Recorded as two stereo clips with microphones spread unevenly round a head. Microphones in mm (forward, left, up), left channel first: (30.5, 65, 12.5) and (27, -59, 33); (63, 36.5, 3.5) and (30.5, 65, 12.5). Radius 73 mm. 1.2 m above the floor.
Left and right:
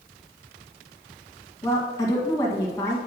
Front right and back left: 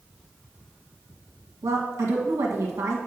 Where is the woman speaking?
155° left, 1.6 m.